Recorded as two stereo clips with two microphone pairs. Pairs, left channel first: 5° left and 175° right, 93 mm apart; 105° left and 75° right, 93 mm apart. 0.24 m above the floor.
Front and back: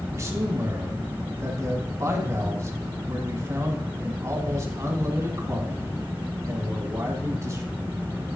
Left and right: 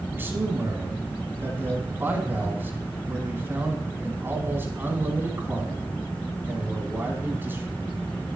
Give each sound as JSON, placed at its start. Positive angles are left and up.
{"t": 0.1, "sound": "a man speaking", "azimuth_deg": -135, "distance_m": 1.8}